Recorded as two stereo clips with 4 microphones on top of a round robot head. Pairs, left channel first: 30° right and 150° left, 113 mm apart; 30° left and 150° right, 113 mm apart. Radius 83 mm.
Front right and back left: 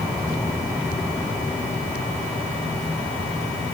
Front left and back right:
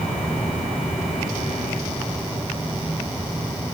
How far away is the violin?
I don't hear a violin.